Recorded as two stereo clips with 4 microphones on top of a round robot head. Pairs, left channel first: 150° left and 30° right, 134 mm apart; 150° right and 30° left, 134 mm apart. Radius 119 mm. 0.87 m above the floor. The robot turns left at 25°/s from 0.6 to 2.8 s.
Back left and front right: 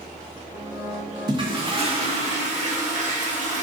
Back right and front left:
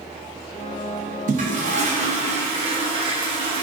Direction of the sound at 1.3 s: 25° left.